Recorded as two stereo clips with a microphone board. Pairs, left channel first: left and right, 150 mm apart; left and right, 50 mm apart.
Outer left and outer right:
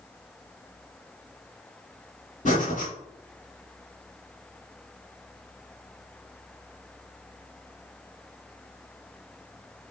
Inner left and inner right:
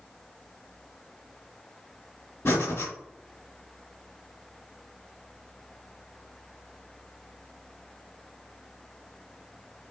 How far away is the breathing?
About 2 m.